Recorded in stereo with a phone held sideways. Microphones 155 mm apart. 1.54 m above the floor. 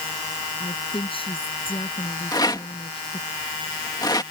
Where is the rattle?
25° left (ahead or behind).